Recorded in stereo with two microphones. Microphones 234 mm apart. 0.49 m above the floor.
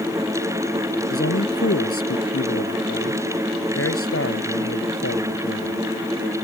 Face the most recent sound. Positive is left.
turn(degrees=85)